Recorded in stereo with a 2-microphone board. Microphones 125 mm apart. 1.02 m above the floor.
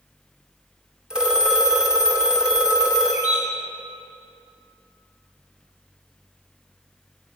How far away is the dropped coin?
No dropped coin in this recording.